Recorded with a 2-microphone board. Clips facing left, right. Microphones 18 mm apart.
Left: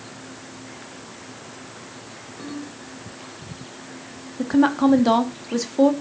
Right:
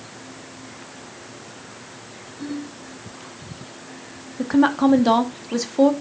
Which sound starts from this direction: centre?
A woman speaking, at 4.4 s.